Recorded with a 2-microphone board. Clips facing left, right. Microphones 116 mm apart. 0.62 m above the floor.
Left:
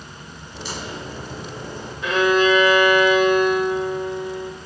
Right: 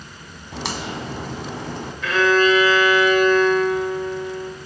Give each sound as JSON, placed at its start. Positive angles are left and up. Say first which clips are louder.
{"t": 0.5, "sound": "a crack", "louder": "right 4 dB", "side_deg": -85, "distance_m": 1.9}
{"t": 2.0, "sound": "a violin", "louder": "even", "side_deg": 20, "distance_m": 2.0}